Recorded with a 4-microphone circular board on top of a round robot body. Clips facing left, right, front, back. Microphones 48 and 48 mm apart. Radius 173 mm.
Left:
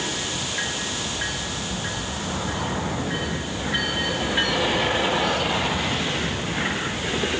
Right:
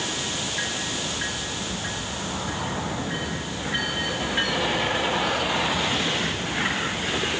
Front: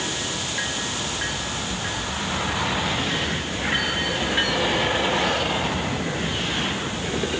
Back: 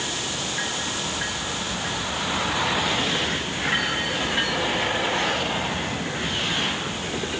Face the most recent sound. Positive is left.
No sound to turn to.